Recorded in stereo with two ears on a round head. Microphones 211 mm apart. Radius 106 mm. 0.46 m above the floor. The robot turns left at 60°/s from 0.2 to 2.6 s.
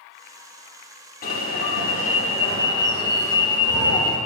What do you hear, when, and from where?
1.2 s an alarm: 110° left, 0.7 m; by 4.2 s 25° left, 0.7 m